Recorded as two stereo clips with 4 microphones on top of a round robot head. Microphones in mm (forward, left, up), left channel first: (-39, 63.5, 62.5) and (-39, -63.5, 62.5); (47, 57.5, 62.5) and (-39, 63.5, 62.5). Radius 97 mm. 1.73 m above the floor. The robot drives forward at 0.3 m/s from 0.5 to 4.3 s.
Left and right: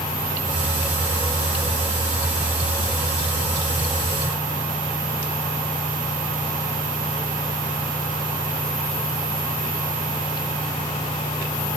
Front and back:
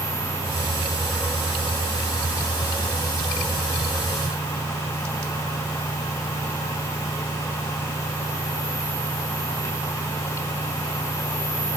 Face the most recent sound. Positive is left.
No sound to turn to.